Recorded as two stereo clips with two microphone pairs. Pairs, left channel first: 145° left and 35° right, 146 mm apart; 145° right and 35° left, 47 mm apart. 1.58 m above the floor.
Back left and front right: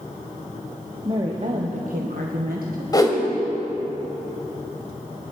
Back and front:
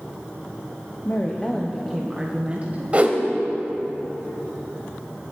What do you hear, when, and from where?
1.1 s a woman speaking: 95° right, 1.1 m; by 2.8 s 25° right, 1.6 m
2.9 s a whoosh: 90° left, 1.9 m